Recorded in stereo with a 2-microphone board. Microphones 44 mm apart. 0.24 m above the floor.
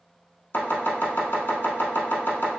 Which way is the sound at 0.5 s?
60° left (ahead or behind).